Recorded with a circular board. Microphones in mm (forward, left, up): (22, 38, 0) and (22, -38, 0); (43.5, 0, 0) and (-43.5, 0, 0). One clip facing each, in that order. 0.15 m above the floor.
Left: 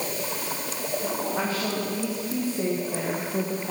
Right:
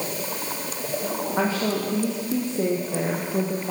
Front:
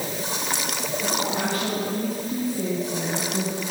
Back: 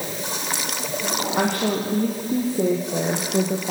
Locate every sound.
1.4 s a woman speaking: 155° right, 5 m; by 3.7 s 175° right, 4.5 m